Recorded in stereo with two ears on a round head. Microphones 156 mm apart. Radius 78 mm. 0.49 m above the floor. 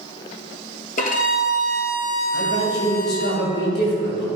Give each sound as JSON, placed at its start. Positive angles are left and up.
{"t": 1.0, "sound": "a violin", "side_deg": 50, "distance_m": 1.4}
{"t": 2.3, "sound": "a man speaking", "side_deg": 65, "distance_m": 2.5}